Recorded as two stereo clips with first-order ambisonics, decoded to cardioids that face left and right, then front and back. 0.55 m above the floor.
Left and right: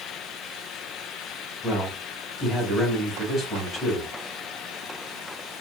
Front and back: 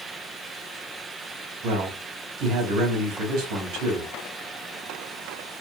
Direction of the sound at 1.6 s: 155° left.